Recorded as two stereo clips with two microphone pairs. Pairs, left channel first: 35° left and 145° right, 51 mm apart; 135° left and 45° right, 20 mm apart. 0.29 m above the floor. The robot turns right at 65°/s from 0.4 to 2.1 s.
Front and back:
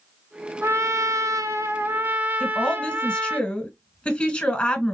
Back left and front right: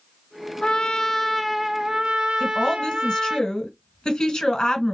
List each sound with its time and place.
0.6 s a trumpet: 175° left, 0.7 m; by 3.4 s 90° right, 0.7 m
2.4 s a woman speaking: 95° left, 1.7 m